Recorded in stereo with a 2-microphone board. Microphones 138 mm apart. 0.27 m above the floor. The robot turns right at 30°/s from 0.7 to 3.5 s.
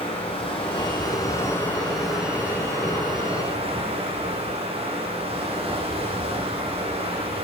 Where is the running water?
140° left, 9 m; by 7.5 s 135° right, 9 m.